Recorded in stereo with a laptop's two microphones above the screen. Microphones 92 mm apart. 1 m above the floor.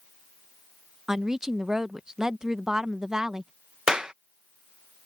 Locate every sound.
1.1 s a woman speaking: 5° right (ahead or behind)
3.9 s a clap: 10° right (ahead or behind)